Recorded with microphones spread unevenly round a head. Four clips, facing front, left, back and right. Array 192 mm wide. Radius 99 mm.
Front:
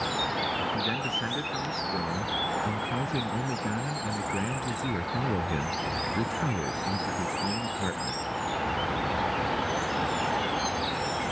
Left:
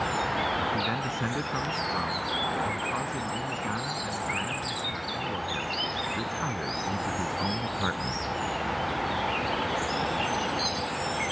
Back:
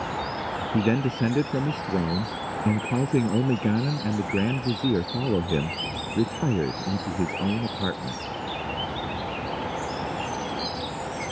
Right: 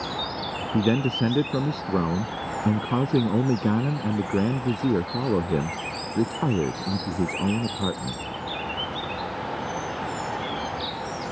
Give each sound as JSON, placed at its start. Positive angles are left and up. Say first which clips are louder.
{"t": 0.7, "sound": "a man speaking", "louder": "right 7 dB, back 7 dB", "azimuth_deg": -125}